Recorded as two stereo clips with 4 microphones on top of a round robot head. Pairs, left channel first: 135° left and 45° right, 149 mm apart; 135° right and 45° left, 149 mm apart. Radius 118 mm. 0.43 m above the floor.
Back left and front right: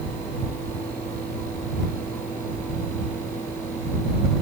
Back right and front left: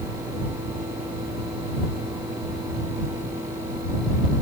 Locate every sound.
Only background noise.